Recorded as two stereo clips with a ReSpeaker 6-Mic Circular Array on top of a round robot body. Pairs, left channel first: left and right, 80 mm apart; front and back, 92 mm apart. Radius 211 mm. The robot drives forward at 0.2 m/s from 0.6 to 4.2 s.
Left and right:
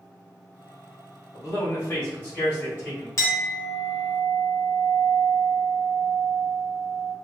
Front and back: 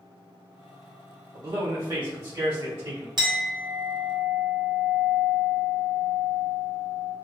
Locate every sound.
1.3 s a man speaking: 150° left, 1.5 m; by 3.1 s 155° left, 1.8 m
3.2 s a clink: 140° left, 0.8 m; by 7.1 s 150° left, 1.0 m